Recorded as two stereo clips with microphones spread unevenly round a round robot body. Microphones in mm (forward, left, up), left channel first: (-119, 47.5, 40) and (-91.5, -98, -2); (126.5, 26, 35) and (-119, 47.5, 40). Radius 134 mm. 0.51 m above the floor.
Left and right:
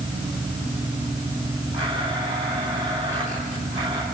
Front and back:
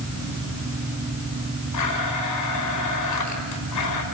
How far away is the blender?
About 5.5 m.